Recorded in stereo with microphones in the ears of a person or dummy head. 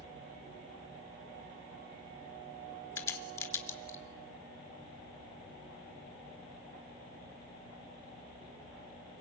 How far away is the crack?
About 3 m.